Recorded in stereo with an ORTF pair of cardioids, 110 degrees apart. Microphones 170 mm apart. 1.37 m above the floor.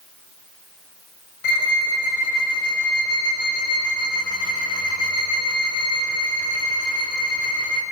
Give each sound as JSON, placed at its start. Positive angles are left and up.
{"t": 1.4, "sound": "a violin", "azimuth_deg": 60, "distance_m": 6.5}